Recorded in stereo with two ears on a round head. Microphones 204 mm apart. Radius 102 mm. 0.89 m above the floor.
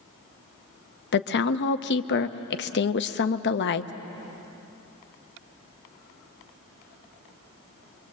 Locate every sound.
1.1 s a woman speaking: 55° left (ahead or behind), 0.9 m